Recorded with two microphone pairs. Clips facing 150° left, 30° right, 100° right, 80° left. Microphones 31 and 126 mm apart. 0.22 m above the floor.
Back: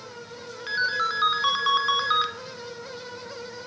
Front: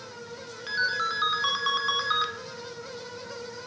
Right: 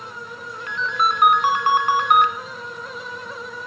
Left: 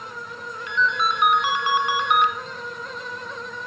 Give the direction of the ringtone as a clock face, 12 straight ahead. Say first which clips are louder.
Back 2 dB, right 1 dB; 4 o'clock.